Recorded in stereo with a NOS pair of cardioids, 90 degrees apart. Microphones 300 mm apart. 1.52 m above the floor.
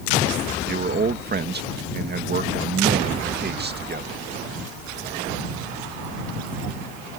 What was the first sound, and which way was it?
A man speaking, 35° right.